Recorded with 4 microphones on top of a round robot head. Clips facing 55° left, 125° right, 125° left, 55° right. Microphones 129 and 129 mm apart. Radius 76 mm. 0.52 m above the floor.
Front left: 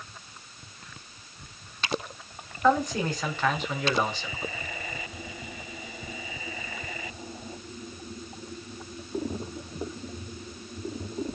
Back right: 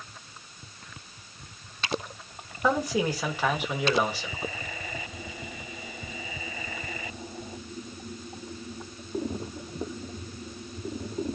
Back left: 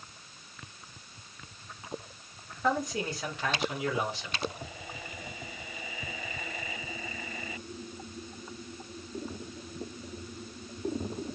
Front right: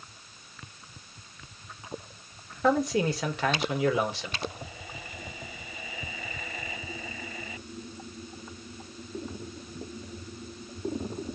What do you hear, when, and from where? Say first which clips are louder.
2.6 s a man speaking: front left 2 dB, front right 6 dB; 45° right, 2 m